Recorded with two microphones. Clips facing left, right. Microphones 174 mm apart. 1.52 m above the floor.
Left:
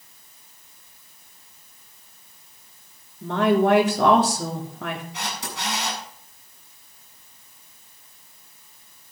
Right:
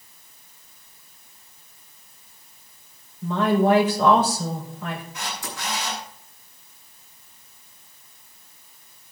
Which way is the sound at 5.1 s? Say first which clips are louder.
Left 1 dB; 75° left (ahead or behind).